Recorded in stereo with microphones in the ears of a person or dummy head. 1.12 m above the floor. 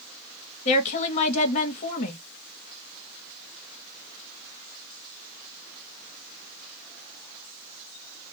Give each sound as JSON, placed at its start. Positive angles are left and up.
{"t": 0.7, "sound": "a woman speaking", "side_deg": 35, "distance_m": 1.0}